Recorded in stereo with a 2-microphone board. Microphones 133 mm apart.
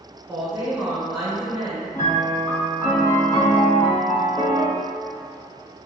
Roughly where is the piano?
Left.